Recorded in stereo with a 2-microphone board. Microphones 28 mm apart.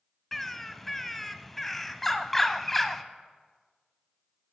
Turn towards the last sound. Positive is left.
turn(degrees=10)  # may be behind; listen again after turning